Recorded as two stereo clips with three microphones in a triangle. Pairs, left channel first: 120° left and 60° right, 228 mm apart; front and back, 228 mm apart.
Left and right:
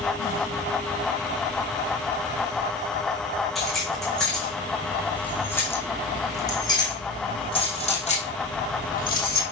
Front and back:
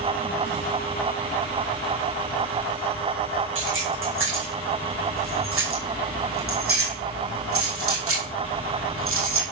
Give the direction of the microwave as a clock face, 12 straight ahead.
No microwave in this recording.